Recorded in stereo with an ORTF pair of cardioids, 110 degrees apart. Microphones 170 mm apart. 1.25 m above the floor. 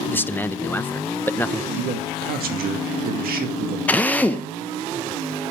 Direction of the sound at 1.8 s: 65° right.